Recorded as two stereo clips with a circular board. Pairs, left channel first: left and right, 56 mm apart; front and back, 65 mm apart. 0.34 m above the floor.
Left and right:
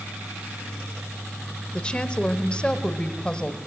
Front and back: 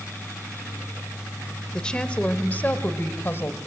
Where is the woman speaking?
55° left, 1.5 m; by 3.6 s 25° left, 1.9 m.